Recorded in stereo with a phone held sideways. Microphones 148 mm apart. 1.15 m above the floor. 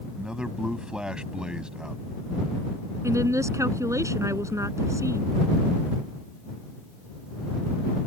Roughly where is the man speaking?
Centre.